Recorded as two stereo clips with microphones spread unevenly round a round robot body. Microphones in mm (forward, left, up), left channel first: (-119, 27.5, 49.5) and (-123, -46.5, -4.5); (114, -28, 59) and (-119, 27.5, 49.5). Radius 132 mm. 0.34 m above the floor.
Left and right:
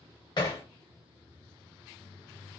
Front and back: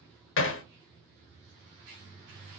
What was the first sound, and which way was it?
Hammering, 10° left.